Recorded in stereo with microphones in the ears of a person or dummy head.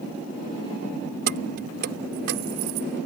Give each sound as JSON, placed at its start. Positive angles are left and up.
{"t": 1.3, "sound": "keys jangling", "side_deg": -55}